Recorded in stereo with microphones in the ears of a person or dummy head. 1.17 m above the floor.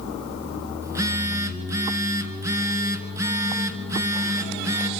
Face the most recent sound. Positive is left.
turn(degrees=-20)  # may be behind; listen again after turning